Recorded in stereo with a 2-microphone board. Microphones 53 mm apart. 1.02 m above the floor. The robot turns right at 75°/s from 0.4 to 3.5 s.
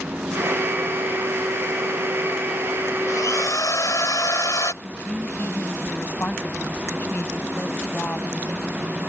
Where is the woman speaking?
40° left (ahead or behind).